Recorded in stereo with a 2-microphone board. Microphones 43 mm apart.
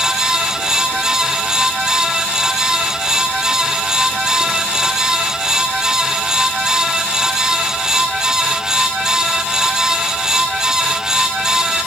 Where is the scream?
I don't hear a scream.